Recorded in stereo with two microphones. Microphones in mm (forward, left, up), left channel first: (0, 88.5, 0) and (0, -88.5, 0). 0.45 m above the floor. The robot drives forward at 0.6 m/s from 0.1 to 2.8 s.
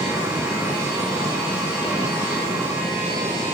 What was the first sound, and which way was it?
An engine running, 15° right (ahead or behind).